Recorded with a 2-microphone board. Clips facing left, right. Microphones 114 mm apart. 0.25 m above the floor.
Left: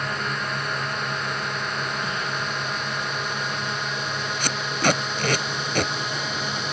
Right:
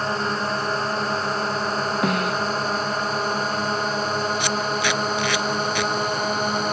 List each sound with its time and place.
0.0 s a drone: 35° right (ahead or behind); by 6.7 s 45° right (ahead or behind)
2.0 s a snare drum: 65° right (ahead or behind)
4.4 s tape being pulled: 45° left (ahead or behind)